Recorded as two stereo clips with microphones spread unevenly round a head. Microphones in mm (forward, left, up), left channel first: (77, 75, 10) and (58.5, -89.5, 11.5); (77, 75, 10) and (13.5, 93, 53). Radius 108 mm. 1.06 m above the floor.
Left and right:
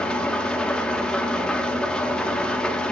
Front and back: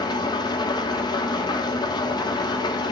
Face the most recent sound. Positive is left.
turn(degrees=0)